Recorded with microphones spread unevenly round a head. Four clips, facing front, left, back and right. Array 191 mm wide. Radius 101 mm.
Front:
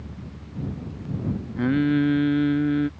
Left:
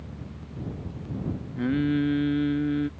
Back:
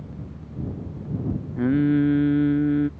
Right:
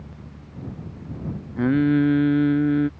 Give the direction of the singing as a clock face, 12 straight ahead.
3 o'clock.